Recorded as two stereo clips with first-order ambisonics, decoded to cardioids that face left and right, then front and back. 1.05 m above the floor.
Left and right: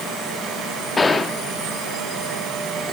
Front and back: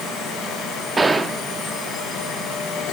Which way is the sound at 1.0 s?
130° left.